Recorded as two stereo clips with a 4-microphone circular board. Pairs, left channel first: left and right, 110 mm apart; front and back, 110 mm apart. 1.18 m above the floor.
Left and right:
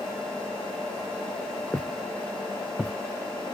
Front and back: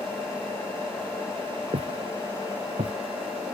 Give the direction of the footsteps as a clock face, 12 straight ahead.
6 o'clock.